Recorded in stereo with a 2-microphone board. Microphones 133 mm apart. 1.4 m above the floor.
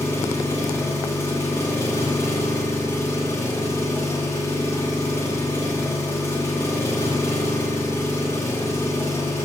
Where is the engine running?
20° left (ahead or behind), 1.0 m.